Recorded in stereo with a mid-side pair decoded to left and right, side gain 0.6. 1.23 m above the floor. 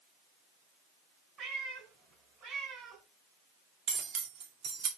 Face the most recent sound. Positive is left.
turn(degrees=-65)